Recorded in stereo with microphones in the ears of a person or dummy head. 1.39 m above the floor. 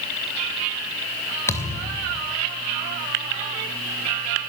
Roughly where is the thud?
Centre.